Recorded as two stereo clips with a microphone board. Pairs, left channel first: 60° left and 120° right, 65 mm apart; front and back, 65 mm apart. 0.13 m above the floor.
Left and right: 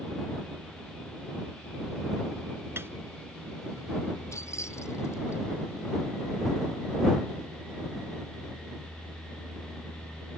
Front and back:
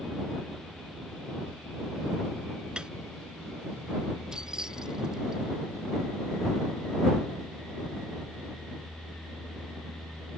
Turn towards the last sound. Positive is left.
turn(degrees=100)